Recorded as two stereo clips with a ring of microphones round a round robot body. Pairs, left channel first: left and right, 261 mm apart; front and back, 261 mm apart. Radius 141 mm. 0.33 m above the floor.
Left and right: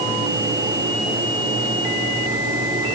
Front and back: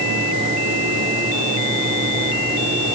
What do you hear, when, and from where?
Only background noise.